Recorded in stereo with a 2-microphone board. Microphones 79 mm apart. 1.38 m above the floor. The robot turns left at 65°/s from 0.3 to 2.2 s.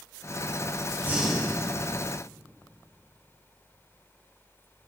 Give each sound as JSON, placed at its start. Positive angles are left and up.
{"t": 1.0, "sound": "breathing", "azimuth_deg": -155, "distance_m": 4.0}